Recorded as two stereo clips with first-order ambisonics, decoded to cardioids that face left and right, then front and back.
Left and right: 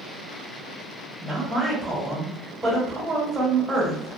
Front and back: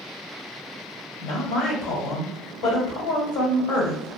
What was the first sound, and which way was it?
A woman speaking, straight ahead.